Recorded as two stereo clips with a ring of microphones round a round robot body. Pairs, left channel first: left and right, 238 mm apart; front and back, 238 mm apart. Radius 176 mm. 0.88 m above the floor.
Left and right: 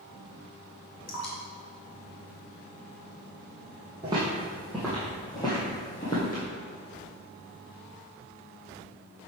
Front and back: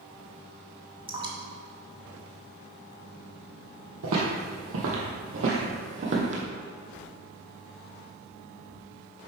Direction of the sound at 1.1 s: 110° left.